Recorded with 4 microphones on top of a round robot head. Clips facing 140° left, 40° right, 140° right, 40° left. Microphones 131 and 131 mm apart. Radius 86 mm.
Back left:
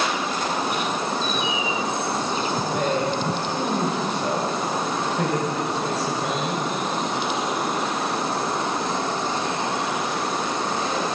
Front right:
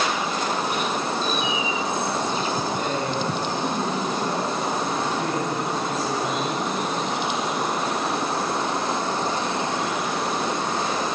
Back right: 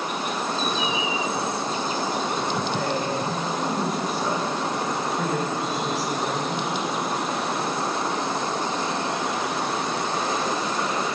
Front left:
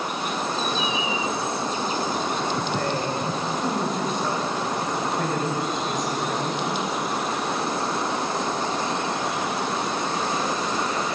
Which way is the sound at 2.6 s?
140° left.